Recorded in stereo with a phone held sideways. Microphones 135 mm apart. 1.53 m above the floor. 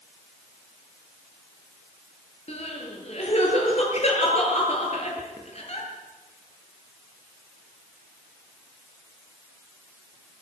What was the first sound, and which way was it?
Crying, 50° left (ahead or behind).